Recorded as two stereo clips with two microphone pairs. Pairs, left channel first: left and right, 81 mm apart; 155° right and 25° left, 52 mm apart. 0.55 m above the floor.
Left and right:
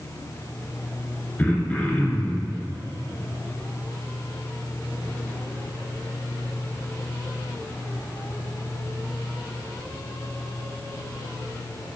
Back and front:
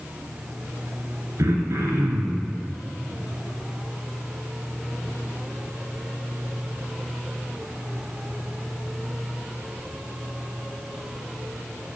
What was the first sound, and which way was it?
Throat clearing, 20° left.